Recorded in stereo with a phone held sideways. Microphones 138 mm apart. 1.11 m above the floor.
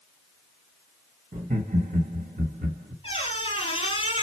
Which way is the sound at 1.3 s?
80° right.